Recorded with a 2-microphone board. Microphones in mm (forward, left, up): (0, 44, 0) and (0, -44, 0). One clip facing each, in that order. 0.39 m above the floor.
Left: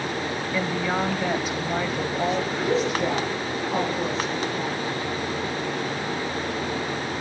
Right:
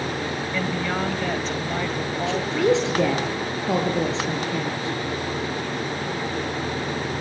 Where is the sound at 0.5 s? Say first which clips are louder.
Left 1 dB; 10° left (ahead or behind), 1.9 m.